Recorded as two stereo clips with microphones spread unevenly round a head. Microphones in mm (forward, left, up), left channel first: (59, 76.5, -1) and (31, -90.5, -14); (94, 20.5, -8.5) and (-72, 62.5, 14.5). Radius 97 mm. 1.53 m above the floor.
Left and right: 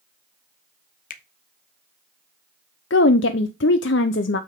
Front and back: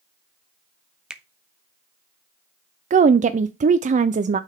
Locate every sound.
1.1 s a finger snap: 90° left, 0.9 m
2.9 s a woman speaking: 115° left, 0.5 m